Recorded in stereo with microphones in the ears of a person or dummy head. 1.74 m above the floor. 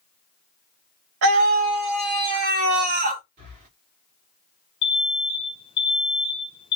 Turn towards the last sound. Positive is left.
turn(degrees=25)  # may be behind; listen again after turning